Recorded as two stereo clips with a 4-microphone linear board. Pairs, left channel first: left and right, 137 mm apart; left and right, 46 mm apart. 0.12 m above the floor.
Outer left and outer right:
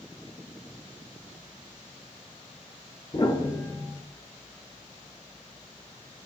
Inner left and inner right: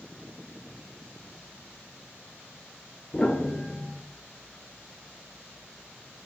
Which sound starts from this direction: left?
A piano, at 3.1 s.